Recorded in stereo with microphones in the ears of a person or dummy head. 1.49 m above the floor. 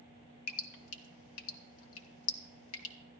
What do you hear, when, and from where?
0.5 s dripping: 75° left (ahead or behind), 1.5 m